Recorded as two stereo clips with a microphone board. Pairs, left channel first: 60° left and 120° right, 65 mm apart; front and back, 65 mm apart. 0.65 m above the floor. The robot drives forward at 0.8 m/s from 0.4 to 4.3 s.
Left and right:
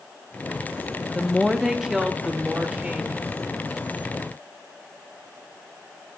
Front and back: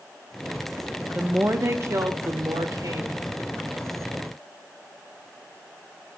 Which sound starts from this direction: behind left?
A woman speaking, at 1.1 s.